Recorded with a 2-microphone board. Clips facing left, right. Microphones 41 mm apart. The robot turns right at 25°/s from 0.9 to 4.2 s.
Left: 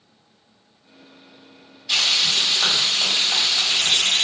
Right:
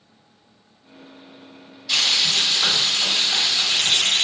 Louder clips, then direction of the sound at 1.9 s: Even; 25° left.